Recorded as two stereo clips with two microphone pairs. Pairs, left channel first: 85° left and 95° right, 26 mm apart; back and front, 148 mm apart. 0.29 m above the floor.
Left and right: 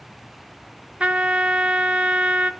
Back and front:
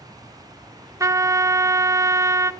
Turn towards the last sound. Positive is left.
turn(degrees=-65)